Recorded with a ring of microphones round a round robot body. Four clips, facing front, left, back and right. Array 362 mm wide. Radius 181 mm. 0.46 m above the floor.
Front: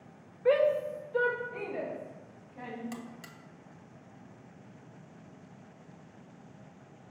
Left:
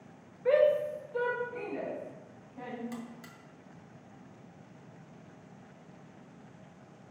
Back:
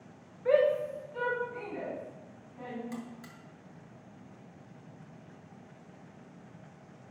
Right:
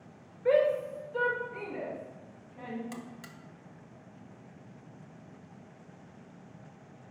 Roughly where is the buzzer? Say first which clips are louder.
Left 1 dB, back 1 dB; ahead right.